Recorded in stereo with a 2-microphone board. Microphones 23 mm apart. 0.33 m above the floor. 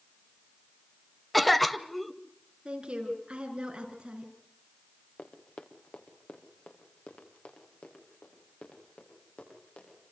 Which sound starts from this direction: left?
Running footsteps, at 5.2 s.